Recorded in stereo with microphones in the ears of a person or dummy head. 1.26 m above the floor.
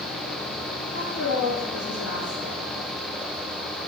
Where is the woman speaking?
70° left (ahead or behind), 0.8 m.